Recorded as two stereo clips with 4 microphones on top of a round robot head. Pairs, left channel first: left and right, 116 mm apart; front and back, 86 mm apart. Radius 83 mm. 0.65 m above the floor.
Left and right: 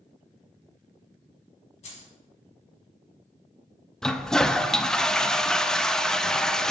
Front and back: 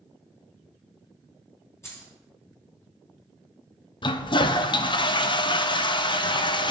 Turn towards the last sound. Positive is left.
turn(degrees=5)